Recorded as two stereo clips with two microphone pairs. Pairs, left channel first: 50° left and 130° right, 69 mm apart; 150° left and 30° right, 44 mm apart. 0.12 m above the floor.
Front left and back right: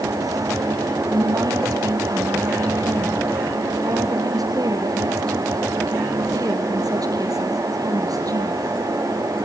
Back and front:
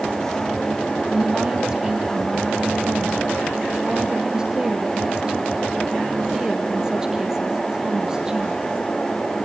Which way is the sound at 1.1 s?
105° right.